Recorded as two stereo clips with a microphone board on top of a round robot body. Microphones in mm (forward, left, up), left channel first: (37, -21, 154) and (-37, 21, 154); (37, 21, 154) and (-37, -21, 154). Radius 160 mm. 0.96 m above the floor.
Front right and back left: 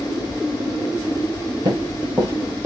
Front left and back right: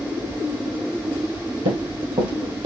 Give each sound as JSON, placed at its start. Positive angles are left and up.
{"t": 1.6, "sound": "running footsteps", "azimuth_deg": -155, "distance_m": 2.0}